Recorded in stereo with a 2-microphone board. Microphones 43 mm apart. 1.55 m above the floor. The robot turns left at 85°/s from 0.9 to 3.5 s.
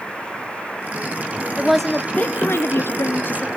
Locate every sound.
1.6 s a woman speaking: 165° right, 1.2 m; by 3.5 s 30° left, 1.2 m